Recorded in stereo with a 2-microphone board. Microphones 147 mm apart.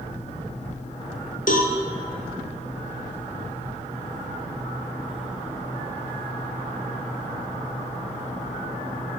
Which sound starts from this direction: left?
A cowbell, at 1.5 s.